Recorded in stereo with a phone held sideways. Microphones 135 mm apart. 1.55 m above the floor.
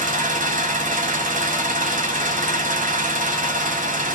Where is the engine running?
80° right, 0.7 m.